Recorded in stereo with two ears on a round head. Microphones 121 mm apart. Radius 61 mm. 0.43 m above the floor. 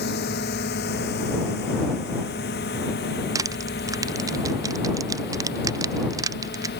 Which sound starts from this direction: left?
A drone, at 0.0 s.